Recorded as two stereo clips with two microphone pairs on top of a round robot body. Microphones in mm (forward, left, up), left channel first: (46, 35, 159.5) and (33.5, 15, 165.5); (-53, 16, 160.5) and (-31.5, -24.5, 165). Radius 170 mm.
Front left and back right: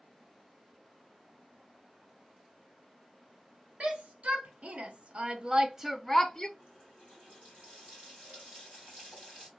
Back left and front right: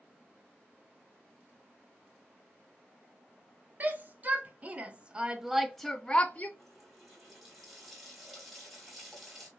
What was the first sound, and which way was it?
A shout, 115° right.